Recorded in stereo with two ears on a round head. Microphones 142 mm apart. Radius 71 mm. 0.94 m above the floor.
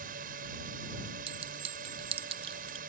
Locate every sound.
0.0 s a drone: 55° right (ahead or behind)
1.3 s a clink: 35° right (ahead or behind)